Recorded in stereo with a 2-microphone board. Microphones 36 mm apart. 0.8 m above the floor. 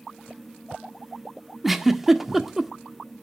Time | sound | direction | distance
1.6 | a giggle | 5° right (ahead or behind) | 1.5 m